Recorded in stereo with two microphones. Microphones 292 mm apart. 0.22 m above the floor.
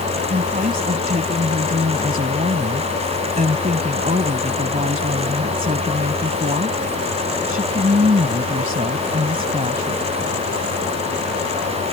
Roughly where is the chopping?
I don't hear chopping.